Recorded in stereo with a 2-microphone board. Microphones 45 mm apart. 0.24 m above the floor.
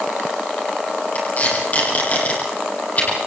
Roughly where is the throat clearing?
No throat clearing in this recording.